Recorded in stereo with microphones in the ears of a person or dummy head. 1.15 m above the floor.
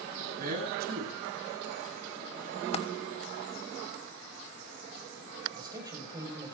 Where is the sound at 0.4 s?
55° right (ahead or behind), 8.5 m.